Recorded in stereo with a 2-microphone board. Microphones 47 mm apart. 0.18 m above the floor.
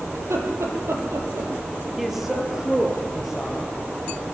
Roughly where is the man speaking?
Centre.